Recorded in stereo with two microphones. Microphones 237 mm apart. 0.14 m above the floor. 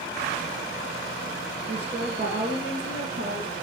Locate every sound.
1.7 s a woman speaking: 45° right (ahead or behind), 3.5 m; by 3.5 s 65° right (ahead or behind), 4 m